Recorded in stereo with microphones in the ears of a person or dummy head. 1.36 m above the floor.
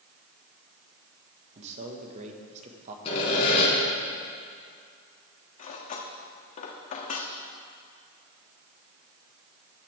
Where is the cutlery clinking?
45° left (ahead or behind), 1.3 m.